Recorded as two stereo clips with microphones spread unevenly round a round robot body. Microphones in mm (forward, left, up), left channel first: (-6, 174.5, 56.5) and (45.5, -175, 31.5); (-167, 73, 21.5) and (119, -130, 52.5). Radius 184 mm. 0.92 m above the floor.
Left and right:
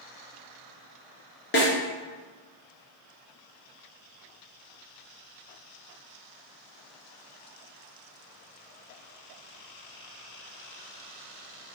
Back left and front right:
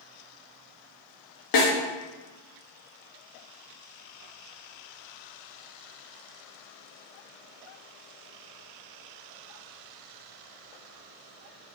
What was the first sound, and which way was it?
A snare drum, 160° left.